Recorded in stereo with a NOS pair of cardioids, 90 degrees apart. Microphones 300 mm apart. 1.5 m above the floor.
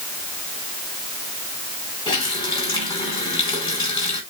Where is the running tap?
15° left, 7 m.